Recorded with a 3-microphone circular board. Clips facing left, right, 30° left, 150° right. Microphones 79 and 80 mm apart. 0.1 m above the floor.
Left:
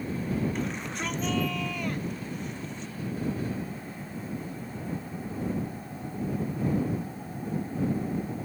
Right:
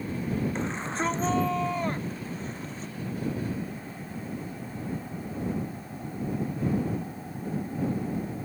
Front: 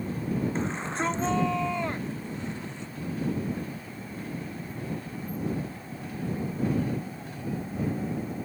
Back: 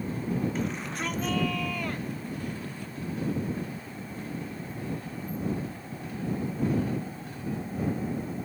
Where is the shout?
30° right; by 2.9 s 40° right.